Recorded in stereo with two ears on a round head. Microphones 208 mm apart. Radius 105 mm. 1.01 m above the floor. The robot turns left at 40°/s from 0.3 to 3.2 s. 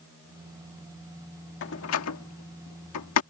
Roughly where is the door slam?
Left.